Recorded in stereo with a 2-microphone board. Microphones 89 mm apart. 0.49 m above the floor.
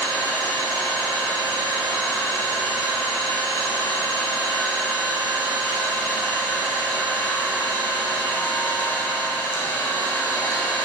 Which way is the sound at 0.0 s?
35° left (ahead or behind).